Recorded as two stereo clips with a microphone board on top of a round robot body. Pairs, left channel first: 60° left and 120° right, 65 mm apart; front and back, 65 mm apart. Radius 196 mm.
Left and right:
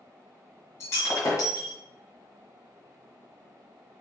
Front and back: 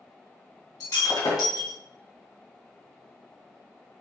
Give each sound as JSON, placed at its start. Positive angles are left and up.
{"t": 0.8, "sound": "breaking glass", "azimuth_deg": 20, "distance_m": 2.5}